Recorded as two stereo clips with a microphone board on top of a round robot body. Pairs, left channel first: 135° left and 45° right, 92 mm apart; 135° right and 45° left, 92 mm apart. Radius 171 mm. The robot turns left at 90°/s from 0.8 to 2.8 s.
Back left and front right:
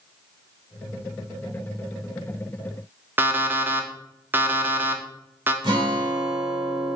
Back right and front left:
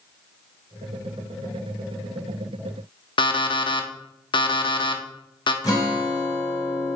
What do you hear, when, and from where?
3.2 s an alarm clock: 110° right, 1.0 m
5.6 s a guitar: 85° right, 2.5 m